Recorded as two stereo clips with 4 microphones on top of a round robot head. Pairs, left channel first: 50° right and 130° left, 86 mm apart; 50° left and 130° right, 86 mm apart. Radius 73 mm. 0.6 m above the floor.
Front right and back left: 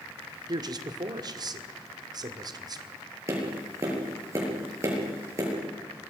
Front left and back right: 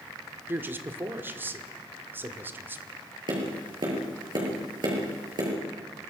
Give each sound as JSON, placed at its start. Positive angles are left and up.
{"t": 0.5, "sound": "a man speaking", "azimuth_deg": 165, "distance_m": 1.8}
{"t": 3.3, "sound": "tapping", "azimuth_deg": -175, "distance_m": 8.0}